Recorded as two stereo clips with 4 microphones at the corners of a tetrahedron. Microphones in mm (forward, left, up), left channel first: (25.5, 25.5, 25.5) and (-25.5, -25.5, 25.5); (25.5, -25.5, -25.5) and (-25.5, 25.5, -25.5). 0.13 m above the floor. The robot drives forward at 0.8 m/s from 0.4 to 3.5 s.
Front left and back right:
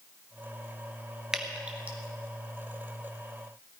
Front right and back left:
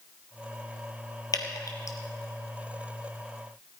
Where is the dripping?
55° right, 1.9 m; by 2.0 s 70° right, 1.7 m.